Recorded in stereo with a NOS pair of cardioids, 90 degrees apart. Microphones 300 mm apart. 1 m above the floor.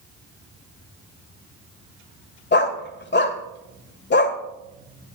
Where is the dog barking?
35° left, 1.9 m.